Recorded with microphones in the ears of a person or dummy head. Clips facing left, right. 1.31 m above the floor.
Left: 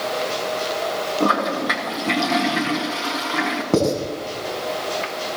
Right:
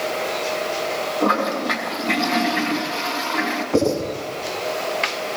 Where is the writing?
60° left (ahead or behind), 7 m.